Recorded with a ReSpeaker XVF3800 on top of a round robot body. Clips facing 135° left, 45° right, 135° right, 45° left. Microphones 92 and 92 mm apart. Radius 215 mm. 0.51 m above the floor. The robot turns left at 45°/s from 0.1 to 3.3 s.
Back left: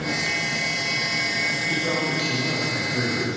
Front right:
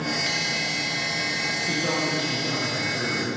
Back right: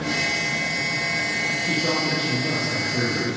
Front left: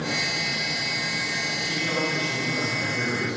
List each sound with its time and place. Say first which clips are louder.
1.6 s a man speaking: even, back right 3 dB; 95° right, 9.5 m; by 3.4 s 170° right, 9.5 m